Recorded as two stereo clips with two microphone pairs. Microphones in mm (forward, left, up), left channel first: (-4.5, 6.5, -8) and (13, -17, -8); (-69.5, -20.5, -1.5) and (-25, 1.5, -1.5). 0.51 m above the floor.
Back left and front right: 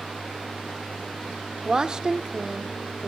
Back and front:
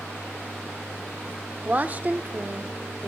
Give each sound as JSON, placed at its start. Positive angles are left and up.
{"t": 1.6, "sound": "a woman speaking", "azimuth_deg": -10, "distance_m": 0.9}